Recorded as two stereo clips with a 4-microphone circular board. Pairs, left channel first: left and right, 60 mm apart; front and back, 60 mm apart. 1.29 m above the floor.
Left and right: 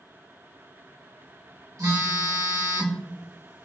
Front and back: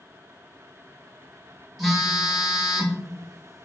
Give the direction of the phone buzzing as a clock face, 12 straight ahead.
3 o'clock.